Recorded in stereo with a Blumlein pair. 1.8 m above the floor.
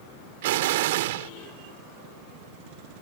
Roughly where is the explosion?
Ahead right.